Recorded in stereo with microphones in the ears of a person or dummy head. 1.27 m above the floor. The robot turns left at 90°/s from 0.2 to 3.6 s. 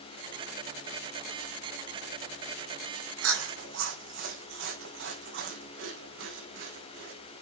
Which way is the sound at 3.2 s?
75° right (ahead or behind).